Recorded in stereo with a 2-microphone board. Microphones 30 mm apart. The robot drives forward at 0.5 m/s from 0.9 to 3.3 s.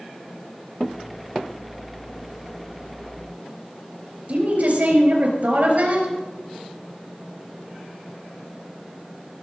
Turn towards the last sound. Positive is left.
turn(degrees=-50)  # may be behind; listen again after turning